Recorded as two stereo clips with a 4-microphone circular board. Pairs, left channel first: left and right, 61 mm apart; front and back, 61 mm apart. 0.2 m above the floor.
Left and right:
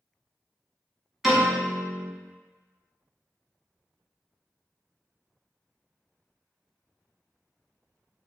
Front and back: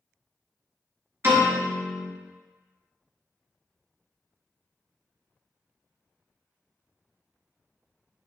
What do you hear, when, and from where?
1.2 s a piano: 170° right, 1.4 m